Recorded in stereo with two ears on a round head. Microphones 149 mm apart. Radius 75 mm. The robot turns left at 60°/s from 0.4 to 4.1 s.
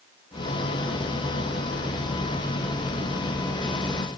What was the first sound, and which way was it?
Only background noise.